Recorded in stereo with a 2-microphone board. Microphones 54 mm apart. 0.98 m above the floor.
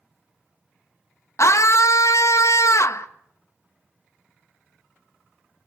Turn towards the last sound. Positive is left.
turn(degrees=65)  # may be behind; listen again after turning